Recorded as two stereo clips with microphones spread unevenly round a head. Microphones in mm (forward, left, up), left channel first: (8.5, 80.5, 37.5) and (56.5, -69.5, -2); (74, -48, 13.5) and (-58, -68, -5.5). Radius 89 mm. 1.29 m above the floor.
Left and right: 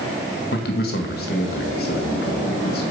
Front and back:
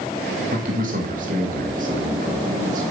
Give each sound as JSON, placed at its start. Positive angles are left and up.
{"t": 0.5, "sound": "a man speaking", "azimuth_deg": 150, "distance_m": 2.0}